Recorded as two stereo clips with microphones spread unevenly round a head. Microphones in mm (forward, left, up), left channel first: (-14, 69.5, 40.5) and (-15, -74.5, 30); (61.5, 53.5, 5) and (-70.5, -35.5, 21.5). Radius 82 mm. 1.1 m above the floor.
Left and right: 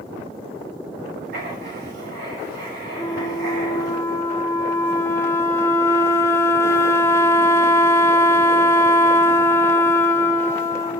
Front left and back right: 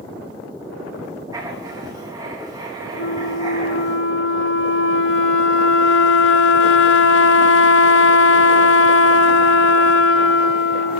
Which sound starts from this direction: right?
Writing, at 1.3 s.